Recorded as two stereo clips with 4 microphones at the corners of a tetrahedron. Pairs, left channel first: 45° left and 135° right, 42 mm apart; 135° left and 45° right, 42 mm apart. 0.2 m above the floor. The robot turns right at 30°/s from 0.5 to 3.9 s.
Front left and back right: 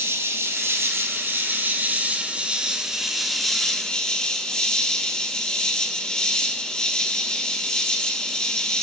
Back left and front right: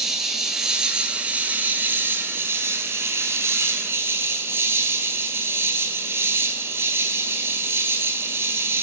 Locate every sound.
0.0 s an insect: 125° right, 1.1 m; by 8.8 s 20° right, 1.1 m